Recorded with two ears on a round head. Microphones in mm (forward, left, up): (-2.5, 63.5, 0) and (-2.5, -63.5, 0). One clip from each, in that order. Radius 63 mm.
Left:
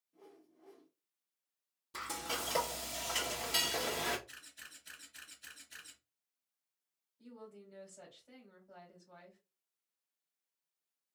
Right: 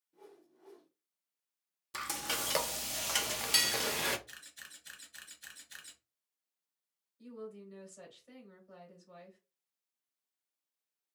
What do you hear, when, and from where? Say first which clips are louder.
0.1 s a whoosh: right 2 dB; 45° right (ahead or behind), 1.1 m
1.9 s frying: right 3 dB; 45° right (ahead or behind), 0.7 m
4.3 s a camera shutter: right 2 dB; 70° right (ahead or behind), 2 m
7.2 s a woman speaking: right 6 dB; 55° right (ahead or behind), 2.5 m